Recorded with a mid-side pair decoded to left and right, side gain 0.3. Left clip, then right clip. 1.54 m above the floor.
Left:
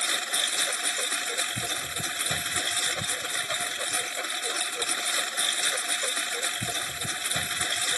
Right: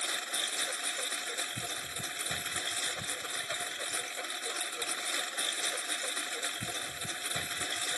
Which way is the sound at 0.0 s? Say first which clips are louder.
Left 7 dB; 70° left.